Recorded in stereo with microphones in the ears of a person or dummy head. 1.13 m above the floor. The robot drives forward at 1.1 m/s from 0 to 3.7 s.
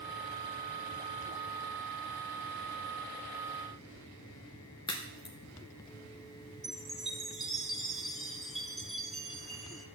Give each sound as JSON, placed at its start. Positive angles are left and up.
{"t": 4.9, "sound": "a crack", "side_deg": 20, "distance_m": 0.6}
{"t": 6.6, "sound": "a chime", "side_deg": 0, "distance_m": 0.8}